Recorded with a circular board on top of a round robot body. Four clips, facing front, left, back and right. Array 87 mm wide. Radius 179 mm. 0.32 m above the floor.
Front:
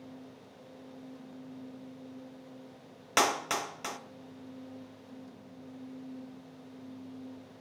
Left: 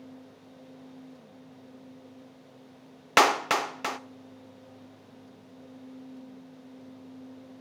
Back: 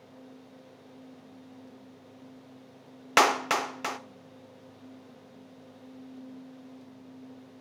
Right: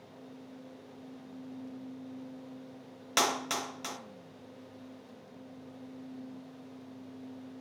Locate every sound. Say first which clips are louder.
3.2 s a clap: left 9 dB, back 6 dB; 120° left, 1.5 m